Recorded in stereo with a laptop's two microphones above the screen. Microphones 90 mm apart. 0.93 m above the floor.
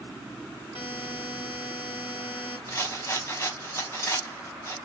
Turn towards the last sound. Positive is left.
turn(degrees=25)  # may be behind; listen again after turning